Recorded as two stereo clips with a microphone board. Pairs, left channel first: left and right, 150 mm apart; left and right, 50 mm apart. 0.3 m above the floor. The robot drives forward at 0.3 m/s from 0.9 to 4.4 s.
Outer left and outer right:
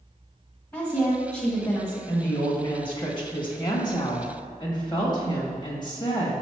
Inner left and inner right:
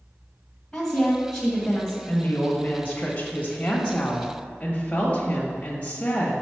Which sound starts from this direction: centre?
A woman speaking, at 0.7 s.